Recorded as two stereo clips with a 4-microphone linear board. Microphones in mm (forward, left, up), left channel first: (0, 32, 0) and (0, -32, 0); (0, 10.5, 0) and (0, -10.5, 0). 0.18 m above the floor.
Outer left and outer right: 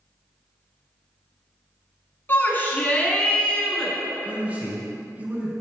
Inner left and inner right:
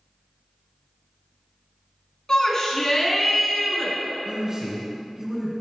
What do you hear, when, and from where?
2.3 s a shout: 35° left (ahead or behind), 1.3 m; by 4.0 s 10° left (ahead or behind), 1.9 m
4.2 s a man speaking: 25° right (ahead or behind), 2 m